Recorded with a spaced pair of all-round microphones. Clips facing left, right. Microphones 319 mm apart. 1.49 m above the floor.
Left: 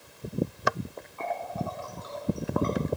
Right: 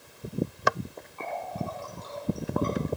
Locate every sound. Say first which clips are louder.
1.2 s a running tap: left 1 dB; 45° right (ahead or behind), 5 m